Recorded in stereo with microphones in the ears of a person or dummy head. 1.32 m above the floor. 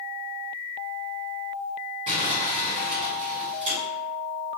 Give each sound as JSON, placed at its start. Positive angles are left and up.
{"t": 2.1, "sound": "crumpling", "side_deg": -35, "distance_m": 2.0}